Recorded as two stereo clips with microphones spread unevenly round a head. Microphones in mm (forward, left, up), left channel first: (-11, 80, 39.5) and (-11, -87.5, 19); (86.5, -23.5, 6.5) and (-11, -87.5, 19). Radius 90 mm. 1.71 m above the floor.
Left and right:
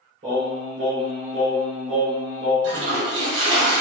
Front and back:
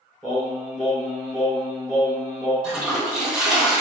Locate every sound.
0.2 s singing: 65° right, 1.6 m
2.6 s a toilet flushing: 65° right, 0.9 m